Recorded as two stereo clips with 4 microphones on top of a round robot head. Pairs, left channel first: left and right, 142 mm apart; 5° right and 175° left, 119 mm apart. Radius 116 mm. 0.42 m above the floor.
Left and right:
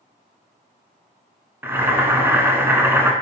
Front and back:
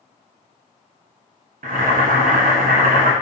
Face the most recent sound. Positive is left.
turn(degrees=-165)